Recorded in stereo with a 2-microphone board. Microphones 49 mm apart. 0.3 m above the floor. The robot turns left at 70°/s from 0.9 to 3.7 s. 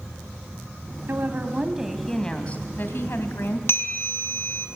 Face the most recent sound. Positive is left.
turn(degrees=55)  # may be behind; listen again after turning